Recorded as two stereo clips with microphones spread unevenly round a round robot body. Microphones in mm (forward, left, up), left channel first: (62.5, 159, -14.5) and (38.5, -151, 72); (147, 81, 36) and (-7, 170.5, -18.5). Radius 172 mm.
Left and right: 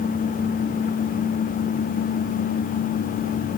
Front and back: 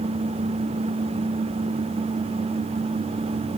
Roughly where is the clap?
No clap in this recording.